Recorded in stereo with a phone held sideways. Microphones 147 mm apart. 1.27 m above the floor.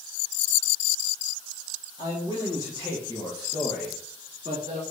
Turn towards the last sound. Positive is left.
turn(degrees=-50)  # may be behind; listen again after turning